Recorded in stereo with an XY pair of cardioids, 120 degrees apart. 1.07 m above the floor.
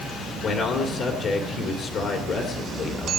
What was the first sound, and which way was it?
A man speaking, 60° left.